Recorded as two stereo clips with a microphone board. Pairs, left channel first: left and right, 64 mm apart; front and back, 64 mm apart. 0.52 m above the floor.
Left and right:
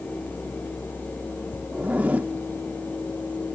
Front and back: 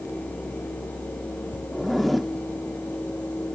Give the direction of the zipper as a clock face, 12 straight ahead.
3 o'clock.